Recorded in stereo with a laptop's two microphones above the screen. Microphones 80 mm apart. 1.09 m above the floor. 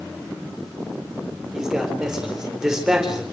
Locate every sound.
1.5 s a man speaking: 5° right (ahead or behind), 4.5 m